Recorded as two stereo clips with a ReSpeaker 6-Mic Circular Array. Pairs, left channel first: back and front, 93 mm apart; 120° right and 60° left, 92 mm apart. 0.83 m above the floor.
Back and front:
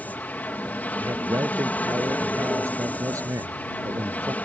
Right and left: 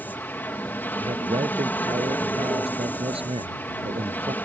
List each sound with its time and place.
0.0 s an aircraft: 140° right
1.0 s a man speaking: 60° left